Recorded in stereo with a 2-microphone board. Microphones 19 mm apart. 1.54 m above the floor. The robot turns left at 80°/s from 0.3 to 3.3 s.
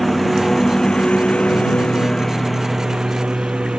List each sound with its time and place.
0.0 s a lawn mower: 175° right; by 3.8 s 55° right